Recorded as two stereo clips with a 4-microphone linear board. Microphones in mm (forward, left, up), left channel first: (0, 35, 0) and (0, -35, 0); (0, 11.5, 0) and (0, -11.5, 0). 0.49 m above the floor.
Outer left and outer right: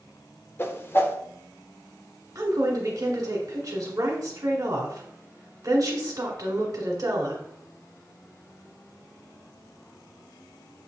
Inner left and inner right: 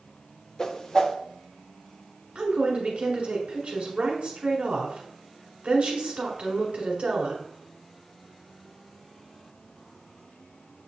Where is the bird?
I don't hear a bird.